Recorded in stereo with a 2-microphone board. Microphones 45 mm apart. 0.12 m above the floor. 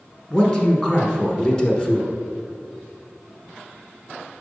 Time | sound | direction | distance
0.3 | a man speaking | 10° left (ahead or behind) | 1.1 m